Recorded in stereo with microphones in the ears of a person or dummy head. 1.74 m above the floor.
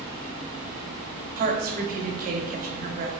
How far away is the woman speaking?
About 0.7 m.